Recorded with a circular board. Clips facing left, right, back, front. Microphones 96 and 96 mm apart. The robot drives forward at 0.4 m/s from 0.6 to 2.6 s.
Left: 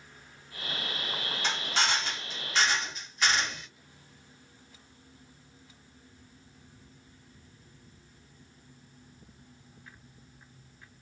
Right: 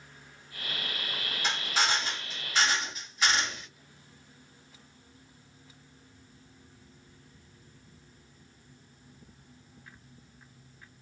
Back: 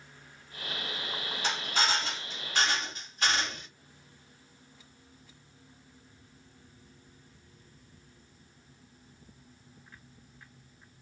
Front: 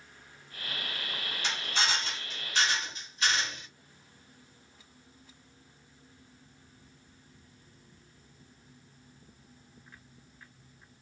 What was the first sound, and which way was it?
A drill, 170° right.